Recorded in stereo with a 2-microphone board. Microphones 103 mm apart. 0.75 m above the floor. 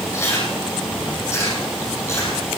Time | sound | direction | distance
0.1 | chewing | 25° left (ahead or behind) | 8.5 m